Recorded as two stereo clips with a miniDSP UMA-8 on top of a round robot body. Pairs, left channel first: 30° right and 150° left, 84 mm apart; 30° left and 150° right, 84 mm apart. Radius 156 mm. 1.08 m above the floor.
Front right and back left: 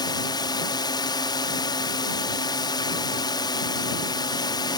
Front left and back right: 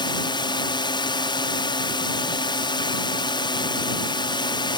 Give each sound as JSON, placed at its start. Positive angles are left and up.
{"t": 0.0, "sound": "a drone", "azimuth_deg": 5}